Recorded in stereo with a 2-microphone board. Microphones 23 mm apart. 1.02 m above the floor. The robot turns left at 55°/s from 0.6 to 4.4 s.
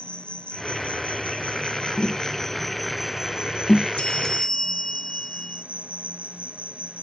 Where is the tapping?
50° left (ahead or behind); by 3.9 s 20° left (ahead or behind).